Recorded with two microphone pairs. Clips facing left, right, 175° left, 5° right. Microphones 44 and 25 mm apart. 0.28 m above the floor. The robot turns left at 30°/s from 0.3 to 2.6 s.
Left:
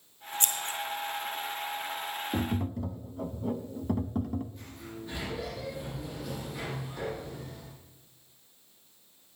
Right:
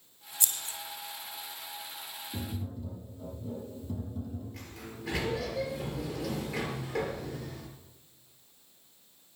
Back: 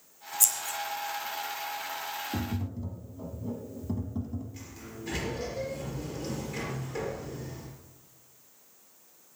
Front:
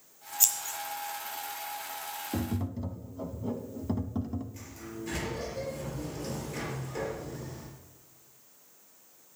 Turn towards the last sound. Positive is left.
turn(degrees=-100)